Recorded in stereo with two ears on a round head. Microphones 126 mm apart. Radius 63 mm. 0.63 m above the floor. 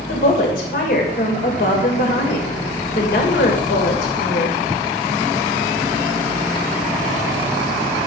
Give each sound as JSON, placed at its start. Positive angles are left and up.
{"t": 0.1, "sound": "a woman speaking", "side_deg": 70, "distance_m": 2.5}